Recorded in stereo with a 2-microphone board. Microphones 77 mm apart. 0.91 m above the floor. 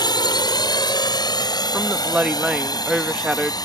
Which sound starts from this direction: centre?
A woman speaking, at 1.7 s.